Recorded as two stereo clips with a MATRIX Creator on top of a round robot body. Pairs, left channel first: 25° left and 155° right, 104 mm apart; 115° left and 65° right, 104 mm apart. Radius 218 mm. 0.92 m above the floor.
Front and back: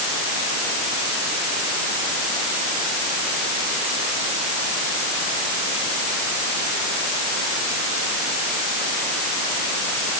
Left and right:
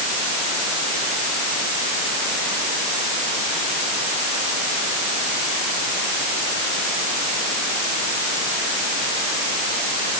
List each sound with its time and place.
Only background noise.